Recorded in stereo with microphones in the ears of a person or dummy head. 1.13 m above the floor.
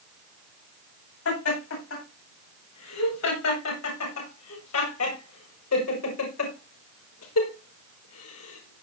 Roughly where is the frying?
No frying in this recording.